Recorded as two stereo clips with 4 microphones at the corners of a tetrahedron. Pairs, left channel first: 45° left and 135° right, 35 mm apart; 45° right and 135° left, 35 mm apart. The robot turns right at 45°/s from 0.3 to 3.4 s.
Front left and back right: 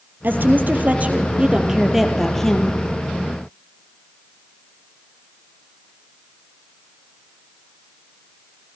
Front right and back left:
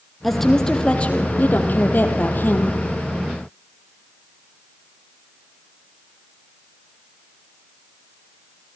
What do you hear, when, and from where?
0.2 s a woman speaking: 130° right, 2.5 m; by 2.7 s 20° right, 2.5 m